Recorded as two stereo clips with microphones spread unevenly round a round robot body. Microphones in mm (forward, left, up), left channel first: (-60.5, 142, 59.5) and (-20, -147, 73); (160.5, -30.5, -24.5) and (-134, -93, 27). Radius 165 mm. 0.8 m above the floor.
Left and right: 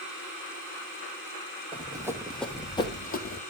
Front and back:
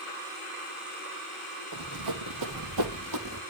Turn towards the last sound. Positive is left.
turn(degrees=150)